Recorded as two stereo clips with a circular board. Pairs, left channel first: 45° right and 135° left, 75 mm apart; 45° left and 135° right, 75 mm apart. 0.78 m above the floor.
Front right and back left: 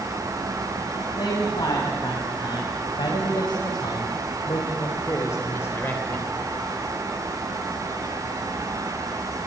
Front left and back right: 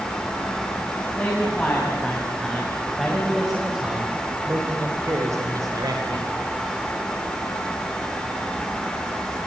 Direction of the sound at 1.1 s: 25° right.